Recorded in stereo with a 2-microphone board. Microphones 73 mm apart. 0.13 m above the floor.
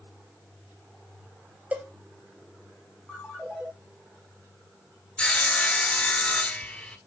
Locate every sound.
1.7 s a cowbell: 20° right (ahead or behind), 1.3 m
3.1 s a ringtone: centre (ahead or behind), 7 m
5.2 s sawing: 15° left (ahead or behind), 0.9 m